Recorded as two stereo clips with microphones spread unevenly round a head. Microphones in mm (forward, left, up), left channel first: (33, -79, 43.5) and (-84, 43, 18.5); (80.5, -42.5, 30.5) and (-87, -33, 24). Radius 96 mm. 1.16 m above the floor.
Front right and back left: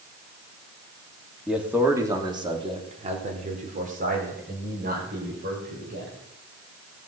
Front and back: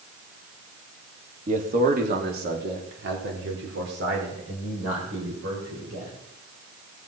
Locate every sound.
1.5 s a man speaking: 140° right, 2.5 m; by 6.2 s 155° left, 6 m